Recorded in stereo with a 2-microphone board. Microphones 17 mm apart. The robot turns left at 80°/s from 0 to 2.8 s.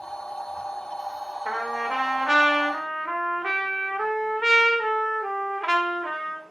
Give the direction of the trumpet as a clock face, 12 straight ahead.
2 o'clock.